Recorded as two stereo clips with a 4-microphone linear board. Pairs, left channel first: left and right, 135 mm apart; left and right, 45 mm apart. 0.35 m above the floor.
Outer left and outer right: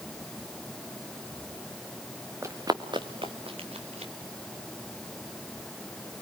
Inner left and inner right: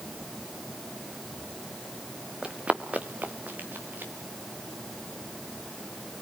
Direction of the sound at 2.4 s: 20° right (ahead or behind).